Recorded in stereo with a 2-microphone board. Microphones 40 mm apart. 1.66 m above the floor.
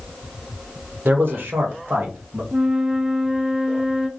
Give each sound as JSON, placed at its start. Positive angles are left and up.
{"t": 1.1, "sound": "a man speaking", "side_deg": -60, "distance_m": 1.1}
{"t": 2.5, "sound": "a flute", "side_deg": -25, "distance_m": 0.5}